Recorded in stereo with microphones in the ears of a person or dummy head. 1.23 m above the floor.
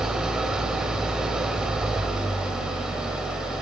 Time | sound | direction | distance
0.0 | an engine running | 5° right (ahead or behind) | 1.9 m